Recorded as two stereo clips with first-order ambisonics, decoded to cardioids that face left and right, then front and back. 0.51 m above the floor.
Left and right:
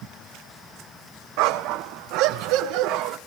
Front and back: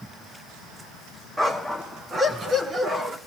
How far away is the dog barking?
About 2.0 m.